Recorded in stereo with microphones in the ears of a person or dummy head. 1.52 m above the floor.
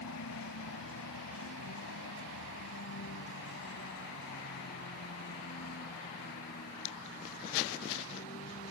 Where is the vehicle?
85° left; by 8.7 s 40° left (ahead or behind).